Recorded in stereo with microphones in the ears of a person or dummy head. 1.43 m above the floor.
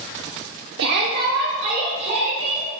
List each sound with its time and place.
0.8 s a shout: 70° right (ahead or behind), 0.8 m; by 2.7 s 50° right (ahead or behind), 2.5 m